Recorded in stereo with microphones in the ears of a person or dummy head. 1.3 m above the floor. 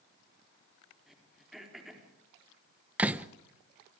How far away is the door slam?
About 0.8 m.